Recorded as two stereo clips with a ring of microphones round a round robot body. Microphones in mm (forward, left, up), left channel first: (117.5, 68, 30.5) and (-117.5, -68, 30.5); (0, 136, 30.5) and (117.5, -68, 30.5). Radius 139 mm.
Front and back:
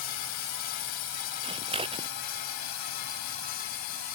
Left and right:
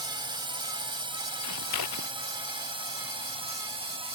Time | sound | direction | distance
0.0 | a drone | 10° left | ?
1.4 | scissors | 140° left | ?